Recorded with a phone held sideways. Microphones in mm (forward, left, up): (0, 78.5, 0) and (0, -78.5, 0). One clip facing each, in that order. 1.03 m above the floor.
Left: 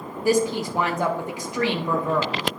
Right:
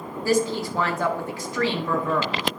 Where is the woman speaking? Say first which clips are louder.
Left 2 dB; 15° left (ahead or behind), 1.1 m.